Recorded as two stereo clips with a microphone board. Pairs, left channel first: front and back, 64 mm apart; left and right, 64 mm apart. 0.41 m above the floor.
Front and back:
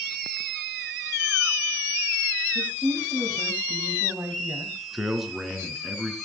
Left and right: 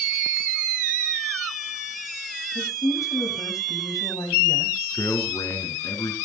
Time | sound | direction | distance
2.5 | a woman speaking | 110° left | 3 m
4.9 | a man speaking | 95° left | 4 m